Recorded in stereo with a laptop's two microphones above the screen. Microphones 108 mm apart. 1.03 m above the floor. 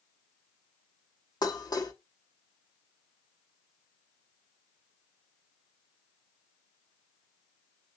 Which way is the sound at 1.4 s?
40° left (ahead or behind).